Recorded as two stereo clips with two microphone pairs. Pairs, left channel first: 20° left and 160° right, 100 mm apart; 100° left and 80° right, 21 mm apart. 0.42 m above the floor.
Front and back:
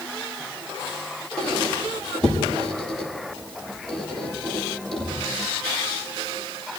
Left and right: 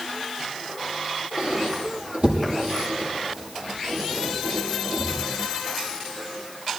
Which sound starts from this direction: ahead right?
A squeak, at 1.4 s.